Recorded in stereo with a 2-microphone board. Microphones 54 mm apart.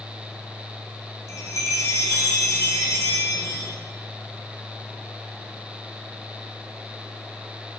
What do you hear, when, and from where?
1.3 s a chime: 60° left (ahead or behind), 7 m